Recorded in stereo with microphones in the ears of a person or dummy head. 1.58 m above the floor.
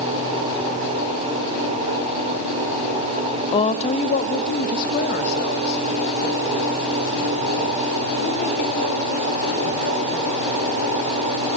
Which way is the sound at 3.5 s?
30° left (ahead or behind).